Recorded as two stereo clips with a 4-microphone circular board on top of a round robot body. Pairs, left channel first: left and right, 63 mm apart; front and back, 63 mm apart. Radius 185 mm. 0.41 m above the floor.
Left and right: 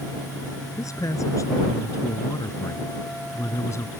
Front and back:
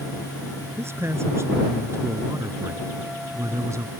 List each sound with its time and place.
0.8 s a man speaking: 130° left; by 3.9 s 140° left